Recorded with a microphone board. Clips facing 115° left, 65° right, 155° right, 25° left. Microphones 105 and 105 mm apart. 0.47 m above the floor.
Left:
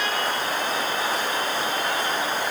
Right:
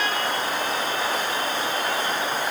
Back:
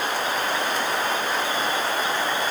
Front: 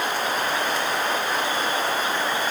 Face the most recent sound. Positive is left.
No sound to turn to.